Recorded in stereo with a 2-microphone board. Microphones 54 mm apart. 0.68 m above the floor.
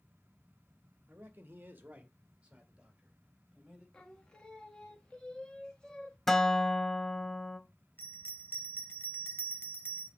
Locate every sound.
1.1 s a man speaking: 35° right (ahead or behind), 0.8 m; by 3.8 s 15° right (ahead or behind), 3.5 m
3.9 s singing: 15° left (ahead or behind), 1.2 m
6.3 s a guitar: 5° left (ahead or behind), 0.6 m
8.0 s a bell: 40° left (ahead or behind), 1.3 m